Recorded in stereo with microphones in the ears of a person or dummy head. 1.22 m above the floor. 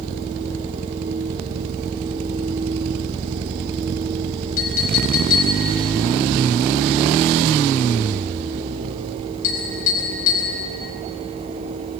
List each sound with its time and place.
4.6 s a clink: 50° left (ahead or behind), 5 m